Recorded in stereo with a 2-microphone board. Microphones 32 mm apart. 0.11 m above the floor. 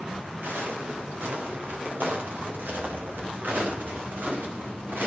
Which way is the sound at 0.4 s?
85° right.